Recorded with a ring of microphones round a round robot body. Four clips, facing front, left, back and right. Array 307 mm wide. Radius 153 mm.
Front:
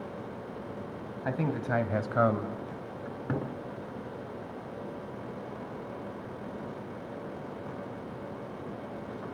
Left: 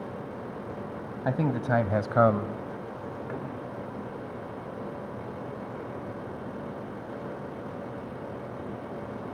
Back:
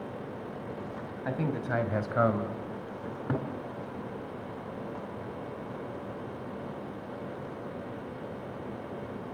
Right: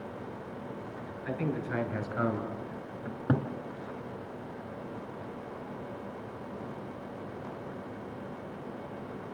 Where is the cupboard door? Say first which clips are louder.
Right 7 dB, back 1 dB; 90° right, 3 m.